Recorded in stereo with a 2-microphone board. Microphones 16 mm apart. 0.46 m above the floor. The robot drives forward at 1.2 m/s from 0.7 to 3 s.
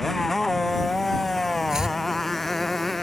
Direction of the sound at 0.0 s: 10° left (ahead or behind).